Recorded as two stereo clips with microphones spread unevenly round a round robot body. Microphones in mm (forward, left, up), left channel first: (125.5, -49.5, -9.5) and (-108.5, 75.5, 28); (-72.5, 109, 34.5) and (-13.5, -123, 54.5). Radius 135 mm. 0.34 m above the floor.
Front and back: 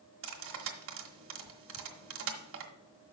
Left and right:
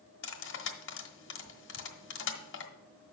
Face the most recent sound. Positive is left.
turn(degrees=110)